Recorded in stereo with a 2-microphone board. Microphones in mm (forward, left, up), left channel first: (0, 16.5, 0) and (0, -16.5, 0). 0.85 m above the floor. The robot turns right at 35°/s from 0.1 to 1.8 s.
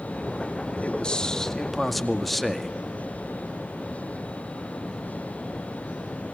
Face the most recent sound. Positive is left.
turn(degrees=175)